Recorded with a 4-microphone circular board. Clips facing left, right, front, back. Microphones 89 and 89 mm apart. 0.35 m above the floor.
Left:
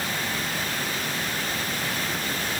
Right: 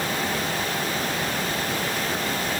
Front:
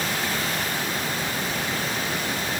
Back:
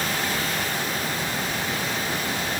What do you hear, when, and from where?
Only background noise.